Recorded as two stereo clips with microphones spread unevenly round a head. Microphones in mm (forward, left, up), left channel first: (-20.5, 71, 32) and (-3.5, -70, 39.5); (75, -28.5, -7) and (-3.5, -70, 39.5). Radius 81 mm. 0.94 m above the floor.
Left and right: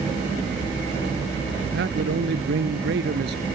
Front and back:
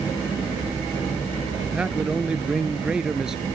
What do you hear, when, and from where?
1.7 s a man speaking: 75° right; by 3.5 s 70° right